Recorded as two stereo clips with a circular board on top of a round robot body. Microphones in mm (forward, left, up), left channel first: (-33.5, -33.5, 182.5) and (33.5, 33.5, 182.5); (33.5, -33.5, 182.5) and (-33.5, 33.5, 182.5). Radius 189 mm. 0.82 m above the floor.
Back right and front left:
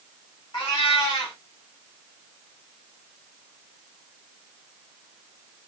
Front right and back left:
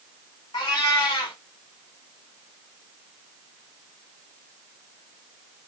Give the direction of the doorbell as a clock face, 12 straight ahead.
I don't hear a doorbell.